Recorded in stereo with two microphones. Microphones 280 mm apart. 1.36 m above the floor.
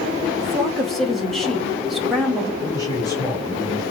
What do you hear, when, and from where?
0.4 s a woman speaking: centre (ahead or behind), 2.5 m
2.6 s a man speaking: 15° left (ahead or behind), 3.5 m